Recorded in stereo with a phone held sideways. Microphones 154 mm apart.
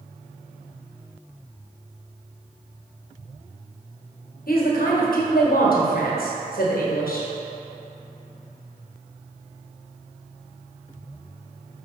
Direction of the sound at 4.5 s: 75° left (ahead or behind).